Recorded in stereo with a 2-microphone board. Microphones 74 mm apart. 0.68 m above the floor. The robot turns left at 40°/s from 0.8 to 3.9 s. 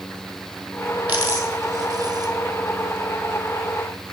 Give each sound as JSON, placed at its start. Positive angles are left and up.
{"t": 1.1, "sound": "a dropped coin", "side_deg": -20, "distance_m": 1.5}